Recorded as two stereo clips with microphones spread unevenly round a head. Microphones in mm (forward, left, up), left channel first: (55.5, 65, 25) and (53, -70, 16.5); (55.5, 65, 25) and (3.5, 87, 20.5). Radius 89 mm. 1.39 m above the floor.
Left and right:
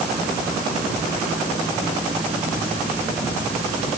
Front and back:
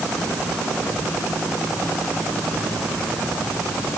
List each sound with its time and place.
Only background noise.